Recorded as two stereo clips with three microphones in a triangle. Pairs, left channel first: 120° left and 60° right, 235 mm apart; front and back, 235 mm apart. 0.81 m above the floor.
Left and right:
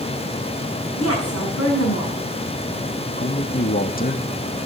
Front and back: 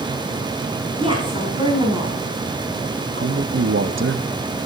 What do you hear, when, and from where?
1.0 s a woman speaking: 110° left, 7 m
3.2 s a man speaking: 165° left, 0.8 m